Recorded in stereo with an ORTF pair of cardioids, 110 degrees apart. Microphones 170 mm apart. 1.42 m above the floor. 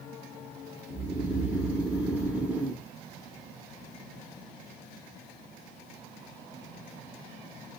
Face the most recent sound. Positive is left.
turn(degrees=-10)